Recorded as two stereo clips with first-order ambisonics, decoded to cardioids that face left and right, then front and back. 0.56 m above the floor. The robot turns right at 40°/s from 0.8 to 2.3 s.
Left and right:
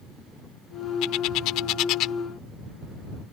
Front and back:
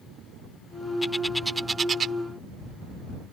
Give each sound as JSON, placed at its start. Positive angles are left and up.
{"t": 1.0, "sound": "a bird", "azimuth_deg": 80}